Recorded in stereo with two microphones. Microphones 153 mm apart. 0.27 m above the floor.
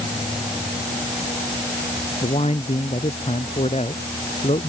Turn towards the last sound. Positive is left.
turn(degrees=45)  # may be behind; listen again after turning